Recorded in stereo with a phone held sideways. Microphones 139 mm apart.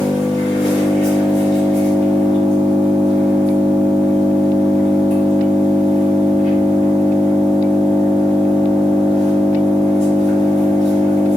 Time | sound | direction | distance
0.0 | an engine running | 50° right (ahead or behind) | 1.9 m